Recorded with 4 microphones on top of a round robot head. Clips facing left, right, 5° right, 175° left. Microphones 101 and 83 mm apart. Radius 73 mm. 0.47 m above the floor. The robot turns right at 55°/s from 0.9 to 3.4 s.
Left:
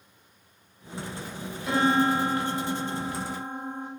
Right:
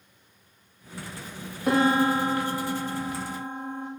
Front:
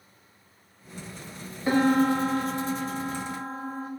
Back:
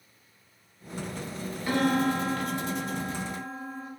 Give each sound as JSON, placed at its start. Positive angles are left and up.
{"t": 1.7, "sound": "a piano", "azimuth_deg": -70, "distance_m": 0.8}